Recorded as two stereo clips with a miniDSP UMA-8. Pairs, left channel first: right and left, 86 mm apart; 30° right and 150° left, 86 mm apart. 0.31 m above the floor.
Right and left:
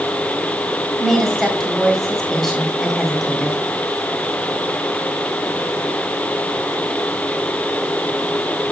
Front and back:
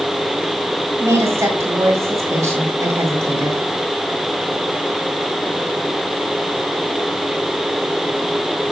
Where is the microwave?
No microwave in this recording.